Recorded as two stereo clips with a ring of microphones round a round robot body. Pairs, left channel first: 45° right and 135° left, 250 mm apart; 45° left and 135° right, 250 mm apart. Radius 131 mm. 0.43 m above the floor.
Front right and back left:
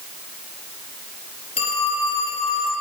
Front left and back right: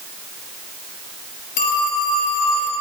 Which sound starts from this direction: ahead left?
A phone ringing, at 1.6 s.